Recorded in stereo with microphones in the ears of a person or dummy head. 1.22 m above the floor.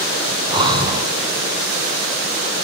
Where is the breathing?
25° right (ahead or behind), 1.1 m.